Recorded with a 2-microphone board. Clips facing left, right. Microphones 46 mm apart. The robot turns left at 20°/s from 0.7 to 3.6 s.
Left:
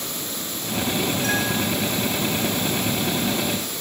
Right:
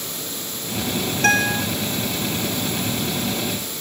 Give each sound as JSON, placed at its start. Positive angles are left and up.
{"t": 1.2, "sound": "a guitar", "side_deg": -75, "distance_m": 3.0}